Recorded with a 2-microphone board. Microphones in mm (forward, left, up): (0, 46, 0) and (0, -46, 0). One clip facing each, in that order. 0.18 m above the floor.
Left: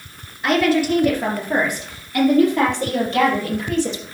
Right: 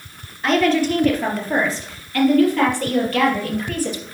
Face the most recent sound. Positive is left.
turn(degrees=25)  # may be behind; listen again after turning